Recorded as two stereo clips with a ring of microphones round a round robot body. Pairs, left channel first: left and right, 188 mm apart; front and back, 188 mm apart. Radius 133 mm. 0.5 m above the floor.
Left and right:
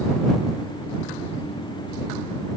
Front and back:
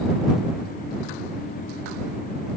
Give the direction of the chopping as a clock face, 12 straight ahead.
No chopping in this recording.